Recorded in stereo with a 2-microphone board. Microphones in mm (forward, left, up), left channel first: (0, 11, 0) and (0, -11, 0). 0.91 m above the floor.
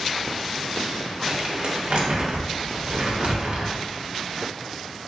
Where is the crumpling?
65° right (ahead or behind), 0.8 m.